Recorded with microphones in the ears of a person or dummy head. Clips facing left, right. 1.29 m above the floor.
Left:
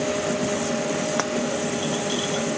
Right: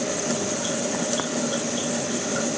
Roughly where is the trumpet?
No trumpet in this recording.